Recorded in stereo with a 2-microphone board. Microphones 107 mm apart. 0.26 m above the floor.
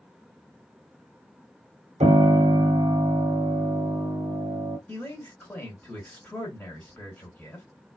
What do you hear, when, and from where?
2.0 s a piano: 85° right, 1.0 m
4.9 s a man speaking: 10° left (ahead or behind), 2.5 m